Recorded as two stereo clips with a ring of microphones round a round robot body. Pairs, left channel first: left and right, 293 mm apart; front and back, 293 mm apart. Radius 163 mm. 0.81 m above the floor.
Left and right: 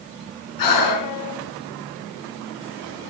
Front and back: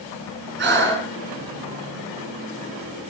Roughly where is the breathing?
Behind left.